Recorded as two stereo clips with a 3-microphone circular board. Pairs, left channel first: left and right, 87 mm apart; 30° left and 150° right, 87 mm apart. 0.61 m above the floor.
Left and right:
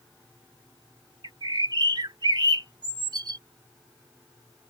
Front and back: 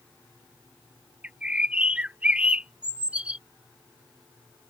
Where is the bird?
75° right.